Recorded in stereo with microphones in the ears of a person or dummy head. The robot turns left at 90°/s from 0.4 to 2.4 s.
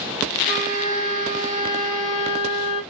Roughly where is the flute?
Ahead right.